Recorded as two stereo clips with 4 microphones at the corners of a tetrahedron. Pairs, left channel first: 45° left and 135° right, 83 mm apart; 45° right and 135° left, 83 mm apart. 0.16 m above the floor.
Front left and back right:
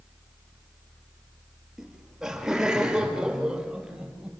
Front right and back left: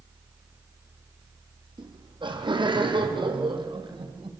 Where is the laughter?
140° left, 5 m; by 4.3 s 145° left, 6.5 m.